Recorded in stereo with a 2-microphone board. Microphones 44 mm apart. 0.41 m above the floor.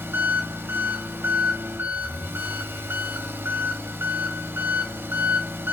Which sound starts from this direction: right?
An engine running, at 0.0 s.